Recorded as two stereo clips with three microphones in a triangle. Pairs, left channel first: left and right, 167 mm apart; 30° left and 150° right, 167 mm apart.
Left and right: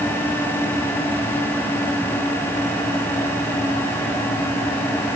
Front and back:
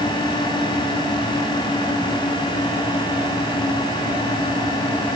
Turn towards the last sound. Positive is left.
No sound to turn to.